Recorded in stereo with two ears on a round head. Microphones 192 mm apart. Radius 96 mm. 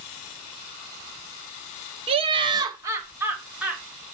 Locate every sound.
2.1 s laughter: 30° right (ahead or behind), 0.9 m; by 3.8 s 5° right (ahead or behind), 2 m